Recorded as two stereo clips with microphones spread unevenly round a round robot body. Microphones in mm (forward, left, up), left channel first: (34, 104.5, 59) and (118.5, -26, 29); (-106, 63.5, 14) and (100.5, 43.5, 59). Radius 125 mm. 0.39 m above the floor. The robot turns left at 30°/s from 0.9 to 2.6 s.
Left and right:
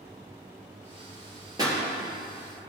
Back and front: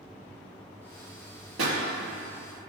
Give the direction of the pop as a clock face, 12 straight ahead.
12 o'clock.